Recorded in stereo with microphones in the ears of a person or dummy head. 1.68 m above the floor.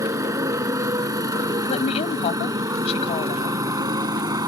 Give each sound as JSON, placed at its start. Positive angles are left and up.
{"t": 0.0, "sound": "a motorcycle", "side_deg": -20}
{"t": 1.7, "sound": "a woman speaking", "side_deg": 40}